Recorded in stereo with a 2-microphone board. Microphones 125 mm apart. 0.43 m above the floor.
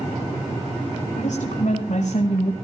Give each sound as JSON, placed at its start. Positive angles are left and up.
{"t": 1.1, "sound": "a woman speaking", "side_deg": 65, "distance_m": 4.0}